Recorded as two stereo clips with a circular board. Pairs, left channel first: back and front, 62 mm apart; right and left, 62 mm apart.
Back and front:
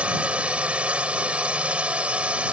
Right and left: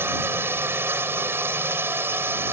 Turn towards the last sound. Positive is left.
turn(degrees=60)